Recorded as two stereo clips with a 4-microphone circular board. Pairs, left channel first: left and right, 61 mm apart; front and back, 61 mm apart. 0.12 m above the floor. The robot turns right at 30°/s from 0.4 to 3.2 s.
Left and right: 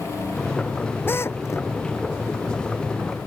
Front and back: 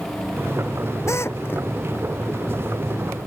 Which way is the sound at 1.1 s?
40° left.